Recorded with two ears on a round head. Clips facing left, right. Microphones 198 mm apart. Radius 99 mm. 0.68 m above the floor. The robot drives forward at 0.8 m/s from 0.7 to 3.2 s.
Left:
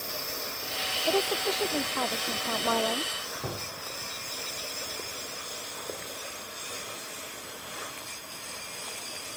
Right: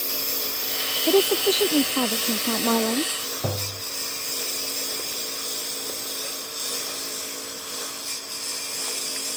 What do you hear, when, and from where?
0.0 s a lawn mower: 45° right (ahead or behind); by 9.4 s 65° right (ahead or behind)
1.1 s a woman speaking: 50° right (ahead or behind)
3.4 s tapping: 85° right